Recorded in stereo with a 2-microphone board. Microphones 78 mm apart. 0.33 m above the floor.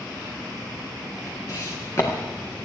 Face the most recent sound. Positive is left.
turn(degrees=30)  # may be behind; listen again after turning